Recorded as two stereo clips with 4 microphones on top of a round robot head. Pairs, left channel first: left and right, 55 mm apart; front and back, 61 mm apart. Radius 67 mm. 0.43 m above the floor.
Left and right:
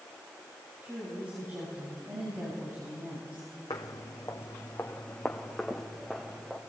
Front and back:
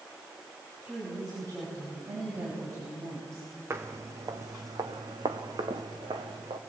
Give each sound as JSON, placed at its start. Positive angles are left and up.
{"t": 0.8, "sound": "a woman speaking", "azimuth_deg": -150, "distance_m": 6.0}
{"t": 3.7, "sound": "footsteps", "azimuth_deg": 130, "distance_m": 1.2}